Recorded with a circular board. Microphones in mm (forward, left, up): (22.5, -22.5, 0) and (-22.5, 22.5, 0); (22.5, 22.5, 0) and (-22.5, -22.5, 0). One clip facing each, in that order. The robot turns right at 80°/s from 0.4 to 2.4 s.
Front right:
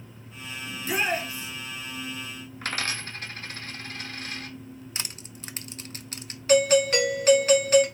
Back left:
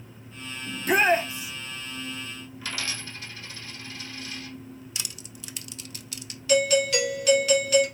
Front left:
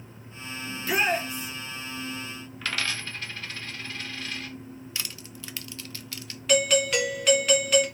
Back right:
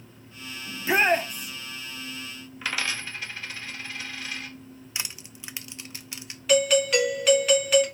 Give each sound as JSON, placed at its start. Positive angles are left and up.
{"t": 0.7, "sound": "a shout", "azimuth_deg": 145, "distance_m": 0.9}
{"t": 2.6, "sound": "a dropped coin", "azimuth_deg": -55, "distance_m": 1.0}
{"t": 5.0, "sound": "crushing", "azimuth_deg": -70, "distance_m": 0.5}
{"t": 6.5, "sound": "a doorbell", "azimuth_deg": -45, "distance_m": 1.4}